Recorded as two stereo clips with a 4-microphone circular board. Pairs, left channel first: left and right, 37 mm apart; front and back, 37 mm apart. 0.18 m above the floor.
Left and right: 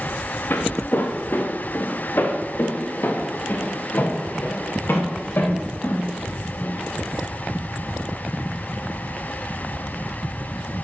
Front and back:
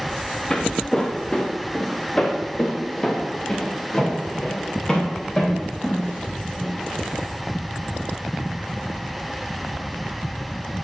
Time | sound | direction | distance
0.5 | footsteps | 70° left | 1.5 m